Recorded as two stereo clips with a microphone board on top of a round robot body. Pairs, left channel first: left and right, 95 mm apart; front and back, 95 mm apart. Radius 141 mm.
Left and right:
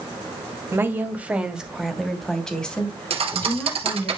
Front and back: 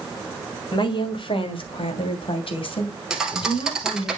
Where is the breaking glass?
I don't hear breaking glass.